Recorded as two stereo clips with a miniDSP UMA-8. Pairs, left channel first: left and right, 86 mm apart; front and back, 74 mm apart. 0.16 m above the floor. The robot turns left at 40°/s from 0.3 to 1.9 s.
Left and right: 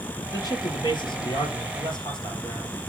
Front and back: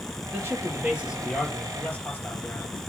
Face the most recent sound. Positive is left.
turn(degrees=65)